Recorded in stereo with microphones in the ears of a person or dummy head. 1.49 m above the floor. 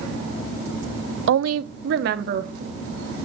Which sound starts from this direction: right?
A woman speaking, at 1.3 s.